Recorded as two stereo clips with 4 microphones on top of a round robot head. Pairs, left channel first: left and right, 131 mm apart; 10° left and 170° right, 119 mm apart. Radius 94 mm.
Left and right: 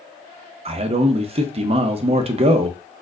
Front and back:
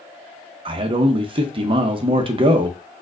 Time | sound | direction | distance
0.7 | a man speaking | 125° right | 0.6 m